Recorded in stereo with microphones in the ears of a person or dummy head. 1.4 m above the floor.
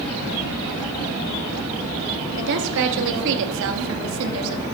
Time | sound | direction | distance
2.4 | a woman speaking | 65° right (ahead or behind) | 3.5 m